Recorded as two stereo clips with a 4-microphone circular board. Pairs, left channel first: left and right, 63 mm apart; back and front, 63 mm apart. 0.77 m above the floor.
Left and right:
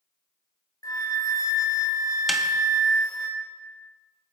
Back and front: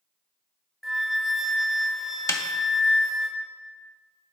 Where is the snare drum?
175° right, 0.9 m.